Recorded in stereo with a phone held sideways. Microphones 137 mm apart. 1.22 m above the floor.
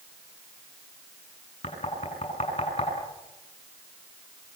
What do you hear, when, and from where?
1.6 s knocking: 55° left (ahead or behind), 7.5 m